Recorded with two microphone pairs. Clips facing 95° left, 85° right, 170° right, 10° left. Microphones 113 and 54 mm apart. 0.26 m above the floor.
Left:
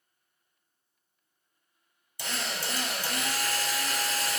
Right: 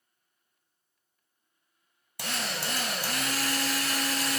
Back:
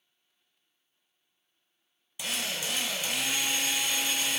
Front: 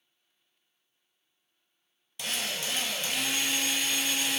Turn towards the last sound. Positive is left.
turn(degrees=-90)